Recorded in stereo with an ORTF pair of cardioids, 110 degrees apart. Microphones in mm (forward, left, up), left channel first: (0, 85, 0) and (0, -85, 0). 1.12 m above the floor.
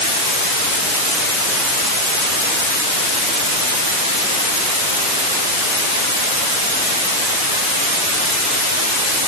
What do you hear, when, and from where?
Only background noise.